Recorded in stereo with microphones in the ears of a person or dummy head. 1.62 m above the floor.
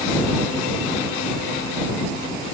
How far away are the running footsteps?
I don't hear running footsteps.